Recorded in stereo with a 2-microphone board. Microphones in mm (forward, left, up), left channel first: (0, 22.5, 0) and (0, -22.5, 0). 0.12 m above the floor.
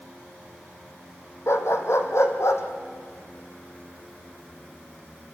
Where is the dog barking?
75° left (ahead or behind), 1.9 m; by 5.3 s 80° left, 3.5 m.